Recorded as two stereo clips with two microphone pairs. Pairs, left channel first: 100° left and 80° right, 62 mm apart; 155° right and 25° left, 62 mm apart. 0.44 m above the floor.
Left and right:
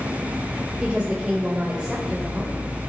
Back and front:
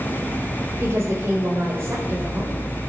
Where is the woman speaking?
5° right, 1.9 m.